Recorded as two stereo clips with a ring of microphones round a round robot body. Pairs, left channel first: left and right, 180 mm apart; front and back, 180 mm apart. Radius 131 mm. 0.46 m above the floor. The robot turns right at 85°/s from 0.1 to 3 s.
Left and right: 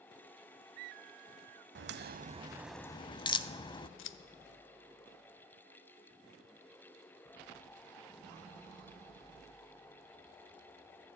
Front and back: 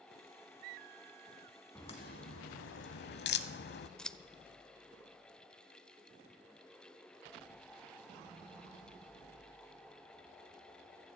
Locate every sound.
1.8 s a crack: 80° right, 0.6 m; by 3.9 s 25° left, 0.6 m
4.0 s scissors: 85° left, 0.5 m